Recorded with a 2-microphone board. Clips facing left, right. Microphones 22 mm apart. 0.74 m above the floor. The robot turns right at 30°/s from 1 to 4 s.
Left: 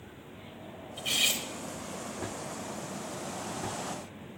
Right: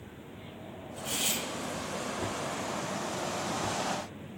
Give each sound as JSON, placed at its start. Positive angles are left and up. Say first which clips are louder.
{"t": 1.0, "sound": "cutlery clinking", "louder": "left 4 dB", "side_deg": 55, "distance_m": 1.1}